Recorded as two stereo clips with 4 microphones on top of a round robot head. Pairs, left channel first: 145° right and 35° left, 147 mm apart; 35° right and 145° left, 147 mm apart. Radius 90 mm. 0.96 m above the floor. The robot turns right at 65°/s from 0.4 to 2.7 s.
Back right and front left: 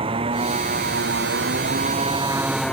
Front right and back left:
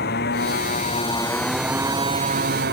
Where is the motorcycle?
20° right; by 2.7 s 130° left.